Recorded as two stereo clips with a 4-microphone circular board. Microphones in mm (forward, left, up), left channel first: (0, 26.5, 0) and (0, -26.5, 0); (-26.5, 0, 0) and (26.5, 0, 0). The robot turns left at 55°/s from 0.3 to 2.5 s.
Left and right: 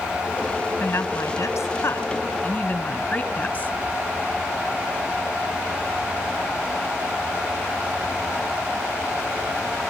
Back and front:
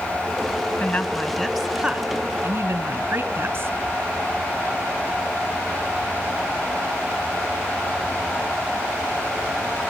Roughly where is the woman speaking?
Behind left.